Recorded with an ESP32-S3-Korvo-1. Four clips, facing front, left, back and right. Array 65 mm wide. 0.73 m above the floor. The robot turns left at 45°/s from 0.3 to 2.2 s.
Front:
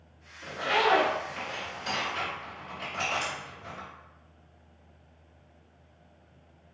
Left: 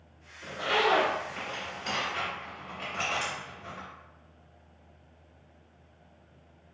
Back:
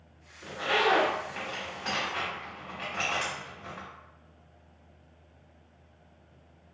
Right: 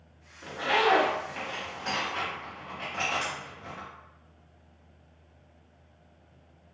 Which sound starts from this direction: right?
A zipper, at 0.4 s.